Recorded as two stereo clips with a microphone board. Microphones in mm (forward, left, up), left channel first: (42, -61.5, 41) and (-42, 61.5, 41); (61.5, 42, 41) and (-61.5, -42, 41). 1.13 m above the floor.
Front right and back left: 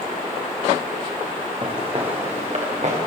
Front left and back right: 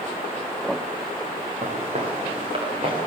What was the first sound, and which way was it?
Footsteps, 175° left.